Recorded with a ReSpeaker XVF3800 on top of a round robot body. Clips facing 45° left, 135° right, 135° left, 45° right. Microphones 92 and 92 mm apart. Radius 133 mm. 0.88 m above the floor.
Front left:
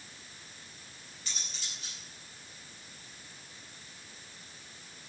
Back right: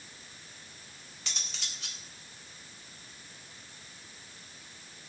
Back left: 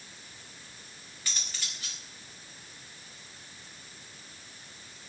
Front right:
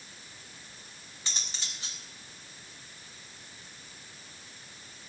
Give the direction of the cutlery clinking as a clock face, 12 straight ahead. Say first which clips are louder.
Back right 2 dB, even; 4 o'clock.